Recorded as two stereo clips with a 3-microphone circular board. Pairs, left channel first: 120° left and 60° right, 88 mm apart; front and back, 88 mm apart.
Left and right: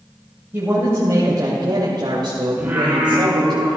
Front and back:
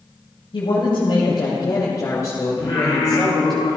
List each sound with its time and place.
0.5 s a woman speaking: 5° left, 3 m; by 3.6 s 80° right, 3 m
2.6 s singing: 15° left, 4 m